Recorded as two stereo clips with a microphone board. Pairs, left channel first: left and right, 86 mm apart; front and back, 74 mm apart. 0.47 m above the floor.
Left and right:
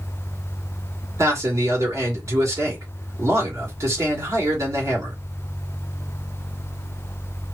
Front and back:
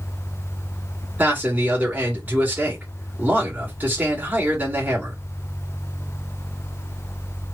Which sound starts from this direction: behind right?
A man speaking, at 1.2 s.